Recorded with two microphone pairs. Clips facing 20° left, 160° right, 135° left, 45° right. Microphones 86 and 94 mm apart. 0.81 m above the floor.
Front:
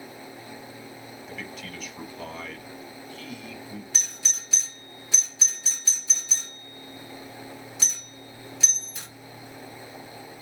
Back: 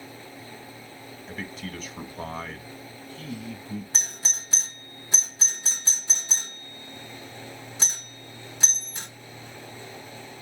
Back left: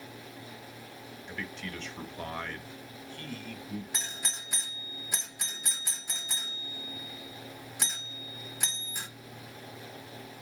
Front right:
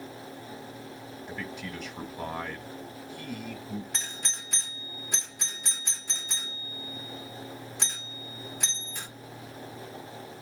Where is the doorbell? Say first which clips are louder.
Back 2 dB, front right 1 dB; 145° right, 1.0 m.